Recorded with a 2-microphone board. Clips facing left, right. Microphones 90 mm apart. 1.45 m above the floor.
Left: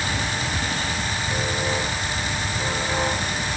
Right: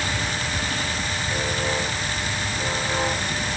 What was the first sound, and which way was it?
Only background noise.